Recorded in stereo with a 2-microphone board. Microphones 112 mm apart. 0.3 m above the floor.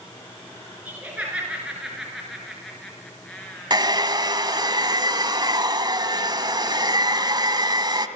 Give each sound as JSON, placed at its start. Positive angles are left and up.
{"t": 0.8, "sound": "laughter", "side_deg": -15, "distance_m": 5.5}
{"t": 3.7, "sound": "a hair dryer", "side_deg": -40, "distance_m": 2.0}